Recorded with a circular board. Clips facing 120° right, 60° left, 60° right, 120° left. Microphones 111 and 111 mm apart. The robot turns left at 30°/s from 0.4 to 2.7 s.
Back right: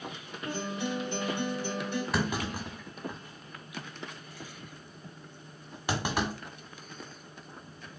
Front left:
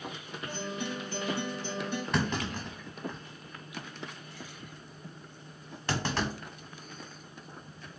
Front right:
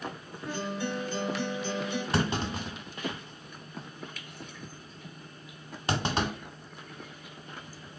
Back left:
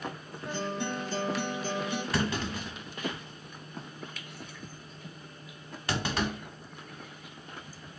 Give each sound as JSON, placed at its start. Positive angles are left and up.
{"t": 0.5, "sound": "a guitar", "azimuth_deg": -165, "distance_m": 2.0}
{"t": 2.1, "sound": "a clunk", "azimuth_deg": -40, "distance_m": 1.1}